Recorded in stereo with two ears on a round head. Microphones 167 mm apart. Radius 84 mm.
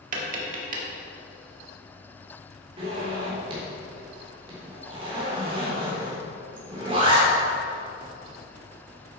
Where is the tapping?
45° right (ahead or behind), 1.8 m.